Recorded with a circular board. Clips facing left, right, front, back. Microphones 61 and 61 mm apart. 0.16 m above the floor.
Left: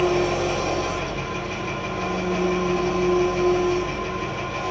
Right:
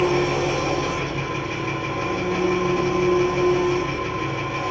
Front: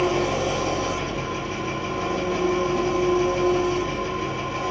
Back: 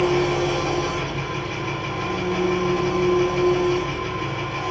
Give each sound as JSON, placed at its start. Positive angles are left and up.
{"t": 0.0, "sound": "an engine running", "azimuth_deg": -145, "distance_m": 1.8}